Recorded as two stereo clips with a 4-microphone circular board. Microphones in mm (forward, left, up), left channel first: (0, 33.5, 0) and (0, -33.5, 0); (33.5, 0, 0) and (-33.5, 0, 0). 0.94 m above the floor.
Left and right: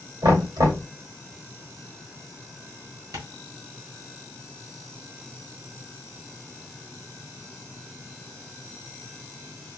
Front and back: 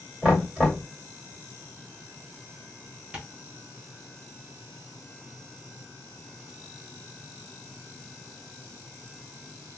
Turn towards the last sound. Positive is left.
turn(degrees=-110)